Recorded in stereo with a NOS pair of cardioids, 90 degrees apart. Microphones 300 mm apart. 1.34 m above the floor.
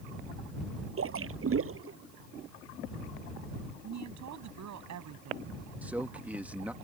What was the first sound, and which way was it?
A splash, 45° right.